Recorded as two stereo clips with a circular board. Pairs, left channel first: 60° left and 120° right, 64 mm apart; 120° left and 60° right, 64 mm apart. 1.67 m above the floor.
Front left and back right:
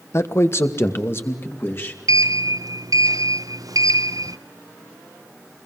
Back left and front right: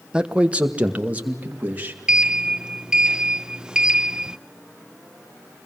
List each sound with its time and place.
0.1 s a man speaking: 15° left, 1.2 m; by 2.0 s 5° left, 3.5 m
2.1 s a sliding door: 135° right, 0.6 m